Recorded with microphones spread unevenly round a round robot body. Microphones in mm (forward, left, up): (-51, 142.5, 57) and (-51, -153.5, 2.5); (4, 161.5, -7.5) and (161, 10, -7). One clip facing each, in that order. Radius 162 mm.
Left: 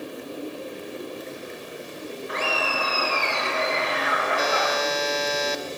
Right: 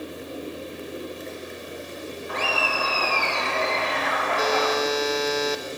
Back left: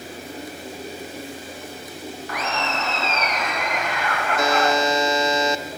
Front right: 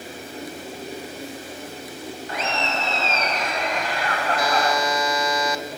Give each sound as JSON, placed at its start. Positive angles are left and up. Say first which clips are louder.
{"t": 2.3, "sound": "laughter", "louder": "even, even", "azimuth_deg": 20, "distance_m": 7.0}
{"t": 4.4, "sound": "a buzzer", "louder": "right 5 dB, back left 4 dB", "azimuth_deg": 70, "distance_m": 2.5}